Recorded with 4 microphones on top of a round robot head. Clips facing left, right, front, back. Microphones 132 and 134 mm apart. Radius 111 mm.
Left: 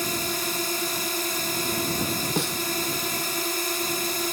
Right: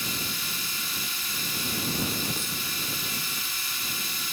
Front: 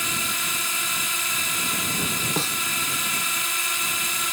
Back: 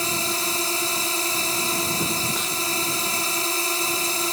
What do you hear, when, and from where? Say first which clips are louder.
0.0 s a drone: left 8 dB, back 5 dB; 130° left
2.4 s a snare drum: left 10 dB, front 2 dB; 60° left